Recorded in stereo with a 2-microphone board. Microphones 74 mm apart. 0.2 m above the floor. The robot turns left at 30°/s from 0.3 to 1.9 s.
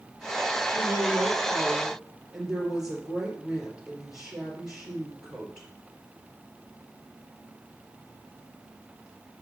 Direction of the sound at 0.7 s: 135° right.